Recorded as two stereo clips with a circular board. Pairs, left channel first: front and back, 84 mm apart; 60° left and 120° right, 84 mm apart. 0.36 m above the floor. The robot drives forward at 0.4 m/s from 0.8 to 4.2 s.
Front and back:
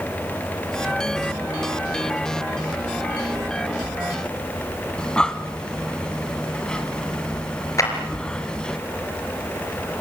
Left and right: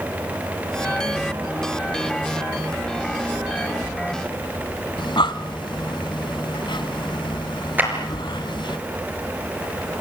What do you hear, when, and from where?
5.0 s breathing: 80° left, 1.3 m
7.8 s a clap: 50° right, 4.5 m